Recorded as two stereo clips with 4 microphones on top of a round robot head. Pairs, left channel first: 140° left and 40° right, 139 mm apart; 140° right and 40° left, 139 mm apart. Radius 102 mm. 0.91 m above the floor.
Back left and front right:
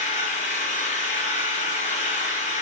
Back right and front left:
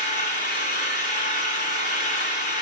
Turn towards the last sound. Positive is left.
turn(degrees=180)